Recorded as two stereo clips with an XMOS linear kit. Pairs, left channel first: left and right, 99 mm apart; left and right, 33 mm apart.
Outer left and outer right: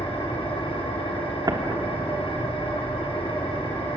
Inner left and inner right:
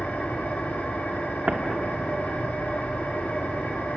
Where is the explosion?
50° right (ahead or behind), 1.6 m.